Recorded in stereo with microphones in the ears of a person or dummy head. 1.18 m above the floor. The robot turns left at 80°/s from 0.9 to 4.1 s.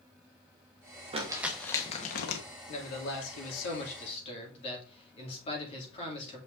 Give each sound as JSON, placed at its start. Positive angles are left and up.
{"t": 1.1, "sound": "crumpling", "side_deg": -30, "distance_m": 1.1}
{"t": 2.7, "sound": "a man speaking", "azimuth_deg": 150, "distance_m": 2.5}